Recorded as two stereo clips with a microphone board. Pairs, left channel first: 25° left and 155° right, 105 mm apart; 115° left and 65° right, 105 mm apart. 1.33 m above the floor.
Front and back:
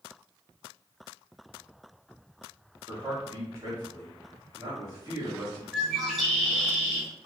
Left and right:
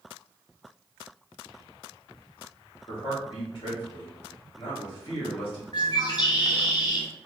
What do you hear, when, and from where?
2.9 s a man speaking: 140° left, 0.9 m
5.7 s a bird: 120° left, 1.1 m